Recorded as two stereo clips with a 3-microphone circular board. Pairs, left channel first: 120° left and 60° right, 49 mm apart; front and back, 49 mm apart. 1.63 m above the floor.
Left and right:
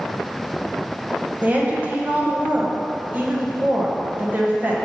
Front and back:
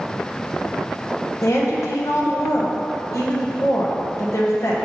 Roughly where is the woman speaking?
Ahead.